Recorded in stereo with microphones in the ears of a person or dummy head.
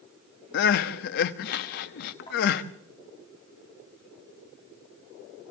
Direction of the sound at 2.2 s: 65° left (ahead or behind).